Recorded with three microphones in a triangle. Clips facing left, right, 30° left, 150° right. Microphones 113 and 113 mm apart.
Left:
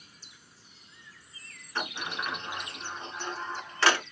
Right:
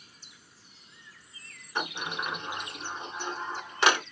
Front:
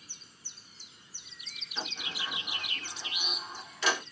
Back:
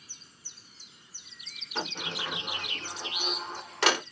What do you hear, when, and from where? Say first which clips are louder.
1.8 s a sliding door: right 1 dB, back 5 dB; 165° right, 0.7 m